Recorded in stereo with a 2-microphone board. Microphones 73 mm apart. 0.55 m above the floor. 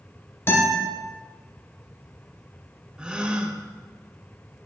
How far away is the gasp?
About 0.5 m.